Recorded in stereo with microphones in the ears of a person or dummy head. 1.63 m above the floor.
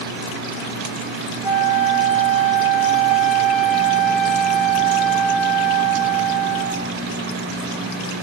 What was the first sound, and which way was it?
A flute, 65° left (ahead or behind).